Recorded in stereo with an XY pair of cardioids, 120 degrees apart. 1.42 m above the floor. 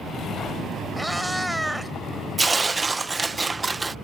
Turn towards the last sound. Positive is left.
turn(degrees=-20)